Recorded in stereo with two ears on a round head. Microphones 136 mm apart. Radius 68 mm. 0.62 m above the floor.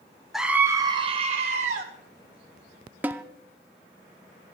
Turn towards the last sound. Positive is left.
turn(degrees=-10)  # may be behind; listen again after turning